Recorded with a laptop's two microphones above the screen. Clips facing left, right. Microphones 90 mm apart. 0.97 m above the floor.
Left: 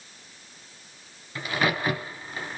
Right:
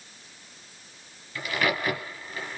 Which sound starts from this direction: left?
A crack, at 1.4 s.